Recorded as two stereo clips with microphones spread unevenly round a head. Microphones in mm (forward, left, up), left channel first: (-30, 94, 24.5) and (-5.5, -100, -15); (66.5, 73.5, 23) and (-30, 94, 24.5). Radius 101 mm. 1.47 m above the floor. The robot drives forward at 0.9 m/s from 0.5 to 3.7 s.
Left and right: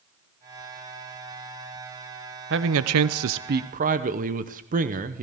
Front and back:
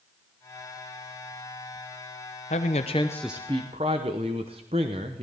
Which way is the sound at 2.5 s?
45° right.